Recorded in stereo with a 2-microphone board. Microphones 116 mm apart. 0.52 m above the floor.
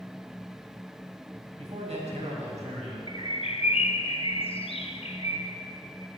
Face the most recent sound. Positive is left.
turn(degrees=55)  # may be behind; listen again after turning